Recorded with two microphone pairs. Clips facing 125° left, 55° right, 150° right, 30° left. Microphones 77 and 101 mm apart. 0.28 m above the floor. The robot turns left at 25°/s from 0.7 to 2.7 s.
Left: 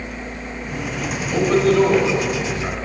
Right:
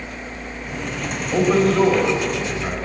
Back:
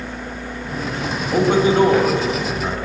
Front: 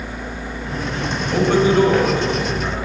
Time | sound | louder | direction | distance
1.3 | a man speaking | left 1 dB, even | 115° right | 1.2 m